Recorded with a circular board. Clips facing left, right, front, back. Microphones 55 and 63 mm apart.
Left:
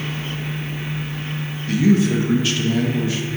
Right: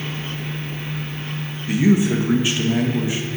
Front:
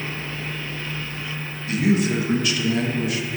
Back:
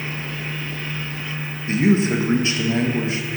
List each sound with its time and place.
1.7 s a man speaking: 145° right, 0.8 m